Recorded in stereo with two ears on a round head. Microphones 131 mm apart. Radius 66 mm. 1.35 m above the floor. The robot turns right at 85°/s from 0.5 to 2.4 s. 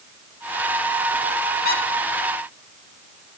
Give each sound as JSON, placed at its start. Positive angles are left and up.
{"t": 1.6, "sound": "a squeak", "side_deg": 70, "distance_m": 3.5}